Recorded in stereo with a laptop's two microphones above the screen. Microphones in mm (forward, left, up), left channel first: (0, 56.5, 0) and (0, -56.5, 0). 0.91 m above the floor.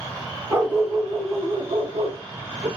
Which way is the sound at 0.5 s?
25° right (ahead or behind).